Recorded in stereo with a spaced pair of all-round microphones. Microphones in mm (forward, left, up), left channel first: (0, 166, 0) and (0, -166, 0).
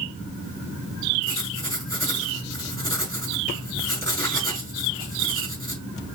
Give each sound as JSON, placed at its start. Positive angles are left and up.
{"t": 1.2, "sound": "writing", "side_deg": 10, "distance_m": 3.5}